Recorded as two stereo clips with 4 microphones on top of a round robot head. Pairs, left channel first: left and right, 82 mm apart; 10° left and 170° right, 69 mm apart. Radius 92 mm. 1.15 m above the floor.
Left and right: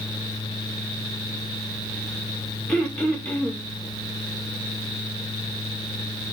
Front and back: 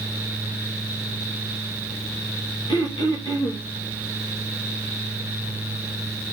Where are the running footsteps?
No running footsteps in this recording.